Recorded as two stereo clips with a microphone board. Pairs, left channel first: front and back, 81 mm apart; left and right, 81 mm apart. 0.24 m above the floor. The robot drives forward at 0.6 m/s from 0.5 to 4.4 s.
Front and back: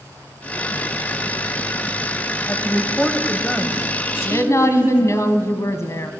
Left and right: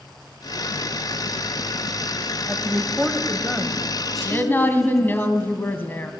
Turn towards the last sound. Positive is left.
turn(degrees=35)